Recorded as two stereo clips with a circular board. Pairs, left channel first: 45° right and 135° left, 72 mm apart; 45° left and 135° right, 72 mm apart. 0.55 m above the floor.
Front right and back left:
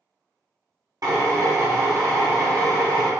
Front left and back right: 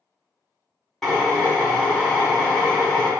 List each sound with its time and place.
1.0 s a drill: 130° left, 0.9 m